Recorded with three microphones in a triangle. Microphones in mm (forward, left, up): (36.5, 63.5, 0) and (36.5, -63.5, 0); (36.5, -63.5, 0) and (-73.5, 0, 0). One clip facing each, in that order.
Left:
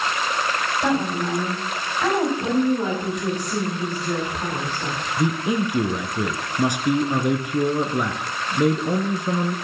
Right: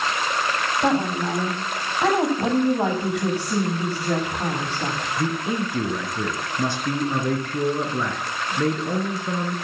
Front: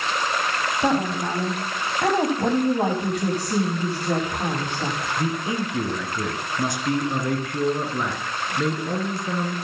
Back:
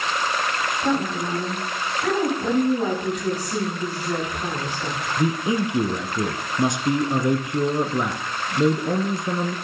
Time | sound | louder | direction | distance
0.8 | a woman speaking | right 1 dB, front 2 dB | 25° right | 5 m
2.4 | a woman speaking | even, even | 70° right | 8.5 m
5.2 | a man speaking | left 4 dB, back 6 dB | 135° left | 1.3 m